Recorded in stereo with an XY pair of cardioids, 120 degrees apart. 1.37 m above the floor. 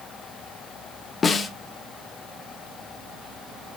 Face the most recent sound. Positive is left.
turn(degrees=40)